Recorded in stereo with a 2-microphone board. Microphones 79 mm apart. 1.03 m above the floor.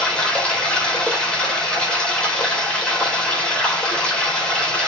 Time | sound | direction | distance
0.0 | running water | 10° left (ahead or behind) | 3.5 m